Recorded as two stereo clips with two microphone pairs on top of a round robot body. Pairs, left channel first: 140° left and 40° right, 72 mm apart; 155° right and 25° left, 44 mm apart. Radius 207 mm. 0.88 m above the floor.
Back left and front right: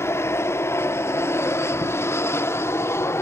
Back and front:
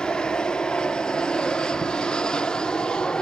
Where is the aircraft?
170° left.